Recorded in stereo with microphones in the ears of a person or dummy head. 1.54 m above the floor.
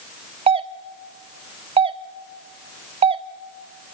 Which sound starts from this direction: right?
A doorbell, at 0.5 s.